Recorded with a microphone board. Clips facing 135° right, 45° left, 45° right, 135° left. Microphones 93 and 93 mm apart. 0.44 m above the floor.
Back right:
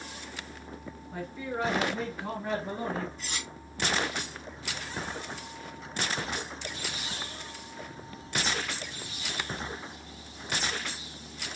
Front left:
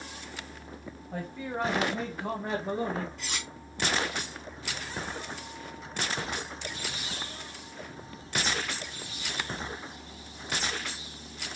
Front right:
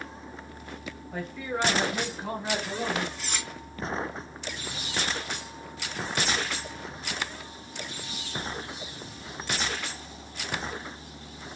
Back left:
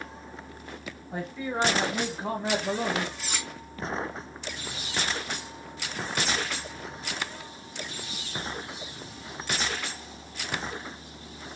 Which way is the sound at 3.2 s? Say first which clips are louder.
Front left 1 dB, even; 50° left.